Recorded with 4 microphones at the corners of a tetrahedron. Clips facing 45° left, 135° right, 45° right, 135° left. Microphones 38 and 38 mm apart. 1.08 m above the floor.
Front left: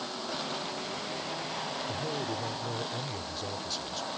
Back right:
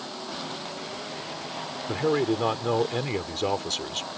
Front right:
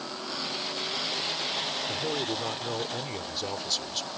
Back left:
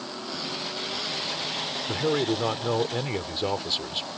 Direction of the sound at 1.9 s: 165° right.